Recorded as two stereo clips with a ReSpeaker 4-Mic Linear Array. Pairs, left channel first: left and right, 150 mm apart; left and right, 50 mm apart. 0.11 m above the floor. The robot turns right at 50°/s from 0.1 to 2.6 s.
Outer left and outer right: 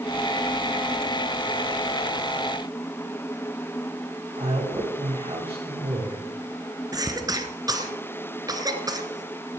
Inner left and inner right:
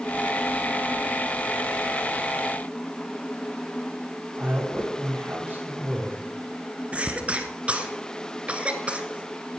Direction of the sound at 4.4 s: 40° right (ahead or behind).